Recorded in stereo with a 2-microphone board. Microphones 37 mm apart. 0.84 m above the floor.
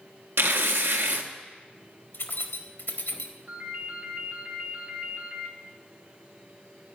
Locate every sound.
0.4 s tearing paper: 80° right, 1.0 m
2.1 s keys jangling: 75° left (ahead or behind), 1.4 m
3.5 s a ringtone: 60° right (ahead or behind), 3.5 m